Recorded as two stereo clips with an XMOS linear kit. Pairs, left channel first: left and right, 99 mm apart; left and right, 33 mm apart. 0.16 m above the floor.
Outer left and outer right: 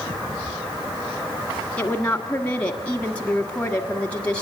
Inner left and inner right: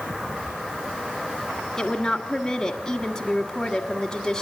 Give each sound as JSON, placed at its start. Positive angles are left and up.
{"t": 1.8, "sound": "a woman speaking", "side_deg": 15, "distance_m": 1.6}